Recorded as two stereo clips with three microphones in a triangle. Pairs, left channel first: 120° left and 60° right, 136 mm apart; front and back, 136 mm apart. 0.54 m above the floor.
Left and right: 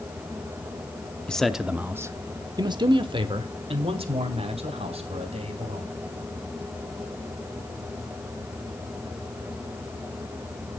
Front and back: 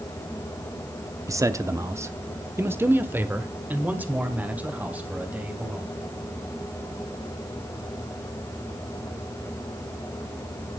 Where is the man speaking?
170° right, 0.7 m; by 5.9 s 100° right, 3 m.